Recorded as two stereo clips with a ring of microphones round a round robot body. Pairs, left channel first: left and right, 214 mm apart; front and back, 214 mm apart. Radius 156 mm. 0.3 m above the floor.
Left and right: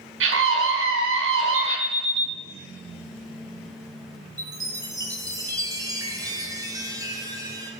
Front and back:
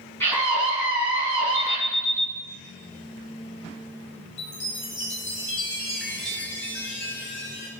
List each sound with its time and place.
0.2 s a scream: 80° right, 3.5 m
1.5 s an alarm: 35° right, 1.9 m
4.4 s a chime: 20° right, 2 m